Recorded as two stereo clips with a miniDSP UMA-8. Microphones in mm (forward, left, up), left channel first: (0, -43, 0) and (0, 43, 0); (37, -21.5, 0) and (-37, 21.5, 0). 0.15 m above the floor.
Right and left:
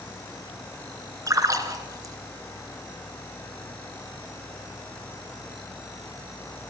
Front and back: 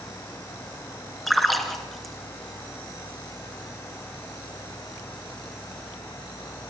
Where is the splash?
60° left, 2.5 m.